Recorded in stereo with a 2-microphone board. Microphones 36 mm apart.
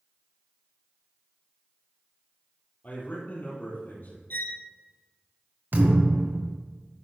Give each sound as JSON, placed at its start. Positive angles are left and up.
{"t": 2.8, "sound": "a man speaking", "side_deg": 55, "distance_m": 4.0}
{"t": 4.3, "sound": "a violin", "side_deg": 75, "distance_m": 1.1}
{"t": 5.7, "sound": "a thud", "side_deg": -60, "distance_m": 2.5}